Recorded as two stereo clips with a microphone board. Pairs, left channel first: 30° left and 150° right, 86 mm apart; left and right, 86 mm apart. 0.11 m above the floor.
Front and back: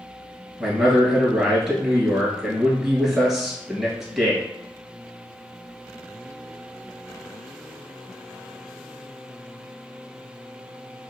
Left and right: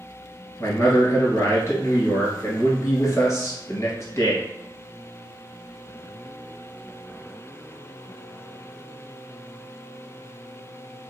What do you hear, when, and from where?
0.6 s a man speaking: 125° left, 1.5 m